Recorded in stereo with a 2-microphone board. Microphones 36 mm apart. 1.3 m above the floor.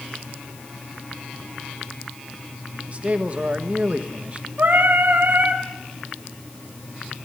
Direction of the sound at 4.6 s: 70° right (ahead or behind).